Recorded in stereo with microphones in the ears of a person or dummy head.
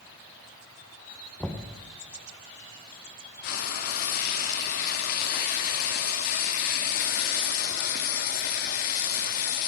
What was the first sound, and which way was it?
Knocking, 10° left (ahead or behind).